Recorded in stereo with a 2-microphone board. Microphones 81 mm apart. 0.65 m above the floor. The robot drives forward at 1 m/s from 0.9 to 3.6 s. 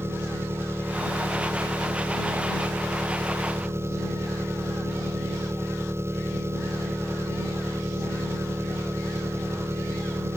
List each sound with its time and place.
0.0 s an engine running: 30° right (ahead or behind); by 10.4 s 35° right (ahead or behind)